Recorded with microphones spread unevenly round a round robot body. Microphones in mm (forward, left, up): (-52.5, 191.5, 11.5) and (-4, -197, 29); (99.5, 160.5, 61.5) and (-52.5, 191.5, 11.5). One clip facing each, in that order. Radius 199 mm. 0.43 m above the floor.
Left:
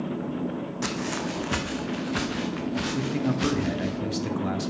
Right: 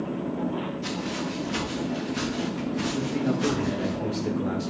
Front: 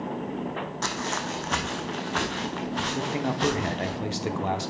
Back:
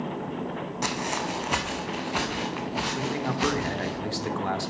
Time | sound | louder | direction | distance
0.8 | footsteps | even, back 3 dB | 85° left | 1.6 m
2.9 | a man speaking | even, front 1 dB | 70° left | 1.3 m